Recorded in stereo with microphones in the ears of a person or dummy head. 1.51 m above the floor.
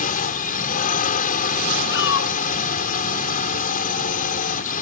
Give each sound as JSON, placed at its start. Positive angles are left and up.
{"t": 0.0, "sound": "a drone", "side_deg": 40}
{"t": 1.9, "sound": "a shout", "side_deg": 60}